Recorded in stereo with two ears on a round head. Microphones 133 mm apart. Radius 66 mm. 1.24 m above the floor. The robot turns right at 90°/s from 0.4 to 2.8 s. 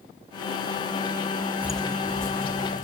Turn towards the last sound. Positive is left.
turn(degrees=50)  # may be behind; listen again after turning